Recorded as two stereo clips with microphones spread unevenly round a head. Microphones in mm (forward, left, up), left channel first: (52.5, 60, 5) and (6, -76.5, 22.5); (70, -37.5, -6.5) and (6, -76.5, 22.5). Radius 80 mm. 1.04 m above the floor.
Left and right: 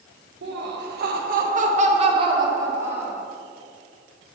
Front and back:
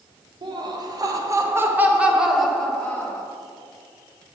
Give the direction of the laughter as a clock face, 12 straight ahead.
4 o'clock.